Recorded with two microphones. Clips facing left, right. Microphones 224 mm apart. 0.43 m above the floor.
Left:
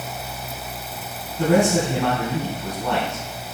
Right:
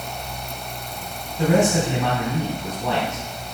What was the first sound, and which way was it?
A man speaking, 5° right (ahead or behind).